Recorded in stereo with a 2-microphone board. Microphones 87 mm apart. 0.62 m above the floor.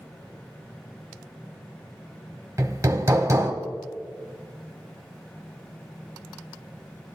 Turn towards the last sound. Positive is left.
turn(degrees=-35)  # may be behind; listen again after turning